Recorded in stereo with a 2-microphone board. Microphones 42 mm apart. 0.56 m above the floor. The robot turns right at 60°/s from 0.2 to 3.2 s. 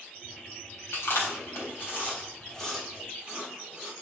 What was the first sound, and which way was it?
Chewing, 65° left (ahead or behind).